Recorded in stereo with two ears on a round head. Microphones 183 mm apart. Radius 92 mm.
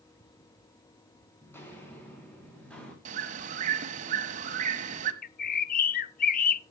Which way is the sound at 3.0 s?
35° right (ahead or behind).